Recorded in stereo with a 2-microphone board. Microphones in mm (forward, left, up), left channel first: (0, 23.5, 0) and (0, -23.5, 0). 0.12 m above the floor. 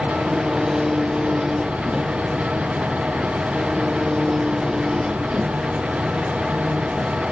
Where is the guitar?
I don't hear a guitar.